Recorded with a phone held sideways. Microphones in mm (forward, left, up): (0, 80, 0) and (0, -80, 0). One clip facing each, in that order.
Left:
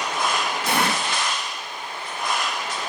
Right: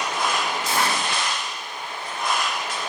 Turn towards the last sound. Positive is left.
turn(degrees=65)  # may be behind; listen again after turning